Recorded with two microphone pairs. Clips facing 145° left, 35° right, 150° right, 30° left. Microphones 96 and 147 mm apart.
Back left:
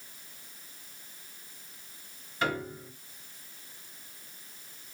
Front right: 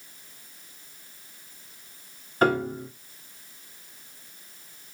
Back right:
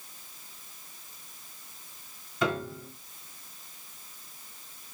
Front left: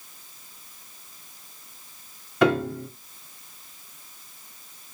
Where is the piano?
10° left, 0.5 m.